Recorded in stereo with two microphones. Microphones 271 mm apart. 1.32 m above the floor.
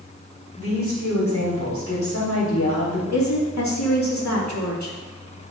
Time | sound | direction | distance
0.6 | a woman speaking | 55° left (ahead or behind) | 4 m
3.1 | a woman speaking | 85° left | 2 m